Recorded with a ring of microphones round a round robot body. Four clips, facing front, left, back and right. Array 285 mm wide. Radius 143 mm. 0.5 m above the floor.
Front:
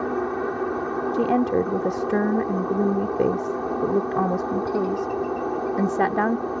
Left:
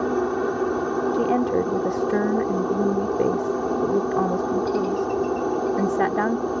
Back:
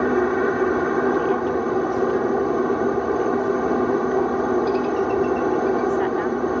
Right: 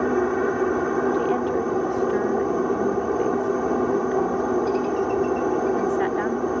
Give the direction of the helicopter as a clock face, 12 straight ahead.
6 o'clock.